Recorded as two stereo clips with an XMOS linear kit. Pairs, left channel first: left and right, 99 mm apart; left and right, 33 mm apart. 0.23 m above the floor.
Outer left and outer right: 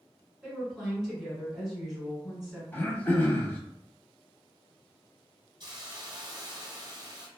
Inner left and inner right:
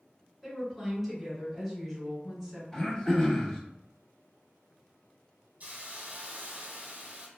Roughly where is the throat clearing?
Centre.